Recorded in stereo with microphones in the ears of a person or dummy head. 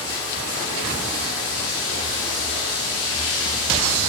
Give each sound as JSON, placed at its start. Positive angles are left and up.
{"t": 0.0, "sound": "running water", "side_deg": 50, "distance_m": 1.1}